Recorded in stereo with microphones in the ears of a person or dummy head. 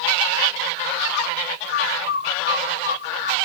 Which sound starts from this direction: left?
A bird, at 1.7 s.